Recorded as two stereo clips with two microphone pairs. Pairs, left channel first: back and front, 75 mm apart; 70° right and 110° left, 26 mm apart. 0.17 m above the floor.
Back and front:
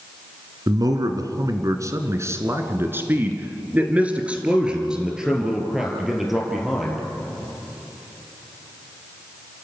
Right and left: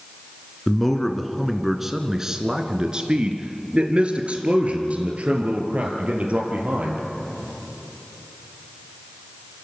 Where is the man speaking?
10° left, 1.8 m; by 7.0 s 90° left, 4 m.